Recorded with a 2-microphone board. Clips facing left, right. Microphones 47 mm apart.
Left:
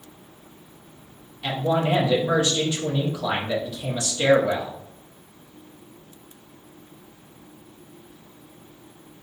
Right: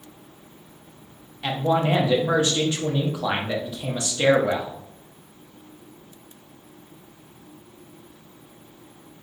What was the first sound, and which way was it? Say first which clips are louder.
A man speaking: right 1 dB; 20° right (ahead or behind).